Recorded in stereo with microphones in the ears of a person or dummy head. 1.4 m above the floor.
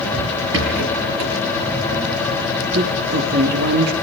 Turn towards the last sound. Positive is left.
turn(degrees=-65)  # may be behind; listen again after turning